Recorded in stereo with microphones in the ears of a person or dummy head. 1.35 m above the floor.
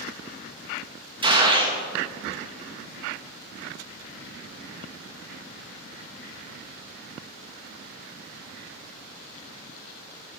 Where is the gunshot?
25° right (ahead or behind), 1.2 m.